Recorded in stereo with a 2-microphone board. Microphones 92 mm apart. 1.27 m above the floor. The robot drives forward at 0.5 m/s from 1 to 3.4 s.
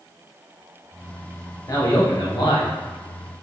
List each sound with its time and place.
1.7 s a man speaking: 45° left (ahead or behind), 1.2 m; by 2.7 s 70° left (ahead or behind), 0.9 m